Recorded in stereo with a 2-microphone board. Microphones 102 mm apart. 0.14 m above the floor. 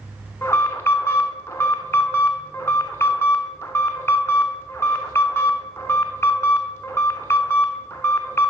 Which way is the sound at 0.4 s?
25° left (ahead or behind).